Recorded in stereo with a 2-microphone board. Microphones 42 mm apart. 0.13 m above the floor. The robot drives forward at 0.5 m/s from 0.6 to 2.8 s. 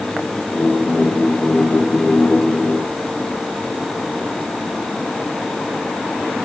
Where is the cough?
No cough in this recording.